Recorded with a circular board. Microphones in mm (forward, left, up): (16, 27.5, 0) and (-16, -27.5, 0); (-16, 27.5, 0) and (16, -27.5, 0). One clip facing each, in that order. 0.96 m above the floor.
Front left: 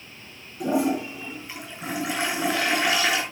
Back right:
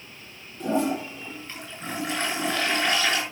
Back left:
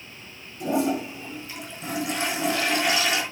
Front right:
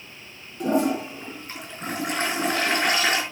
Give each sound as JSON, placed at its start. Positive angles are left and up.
{"t": 0.6, "sound": "a toilet flushing", "azimuth_deg": -20, "distance_m": 4.5}